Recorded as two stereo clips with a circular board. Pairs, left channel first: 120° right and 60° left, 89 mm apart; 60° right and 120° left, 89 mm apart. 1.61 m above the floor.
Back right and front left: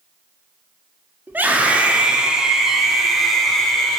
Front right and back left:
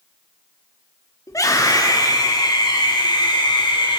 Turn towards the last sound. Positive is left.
turn(degrees=-35)